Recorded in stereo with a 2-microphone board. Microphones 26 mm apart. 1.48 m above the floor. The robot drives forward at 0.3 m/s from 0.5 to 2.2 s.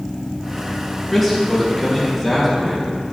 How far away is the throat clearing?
I don't hear throat clearing.